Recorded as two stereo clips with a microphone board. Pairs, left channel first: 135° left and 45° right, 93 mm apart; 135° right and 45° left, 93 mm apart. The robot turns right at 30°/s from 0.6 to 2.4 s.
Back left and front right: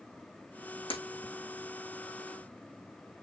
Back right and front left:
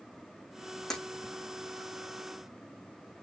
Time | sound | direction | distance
0.9 | breaking glass | 140° left | 3.5 m